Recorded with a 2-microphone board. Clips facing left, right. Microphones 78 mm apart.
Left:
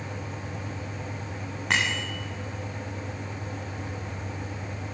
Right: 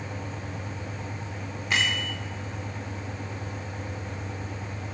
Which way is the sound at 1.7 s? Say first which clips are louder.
Left 1 dB; 75° left (ahead or behind).